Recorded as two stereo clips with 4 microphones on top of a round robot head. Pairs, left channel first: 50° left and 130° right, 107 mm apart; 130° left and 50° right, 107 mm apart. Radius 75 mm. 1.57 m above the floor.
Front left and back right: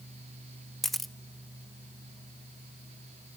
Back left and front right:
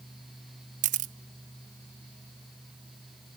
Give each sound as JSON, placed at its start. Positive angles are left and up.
{"t": 0.8, "sound": "a camera shutter", "azimuth_deg": -40, "distance_m": 0.6}